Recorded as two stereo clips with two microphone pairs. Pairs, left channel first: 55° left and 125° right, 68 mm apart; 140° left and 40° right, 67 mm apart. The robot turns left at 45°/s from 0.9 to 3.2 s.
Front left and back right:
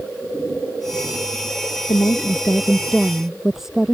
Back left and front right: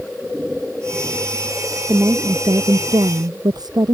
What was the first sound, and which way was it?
A woman speaking, 20° left.